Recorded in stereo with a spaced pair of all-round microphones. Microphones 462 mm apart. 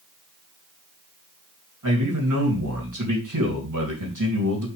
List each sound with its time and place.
1.8 s a man speaking: 40° right (ahead or behind), 3 m